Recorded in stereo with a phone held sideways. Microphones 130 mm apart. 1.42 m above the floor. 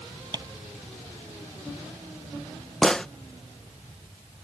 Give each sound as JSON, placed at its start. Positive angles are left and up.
{"t": 0.3, "sound": "tapping", "side_deg": -30}
{"t": 2.8, "sound": "a gunshot", "side_deg": 5}